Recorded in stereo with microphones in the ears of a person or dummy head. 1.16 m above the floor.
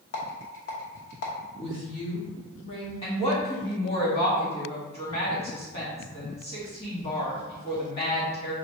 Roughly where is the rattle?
Left.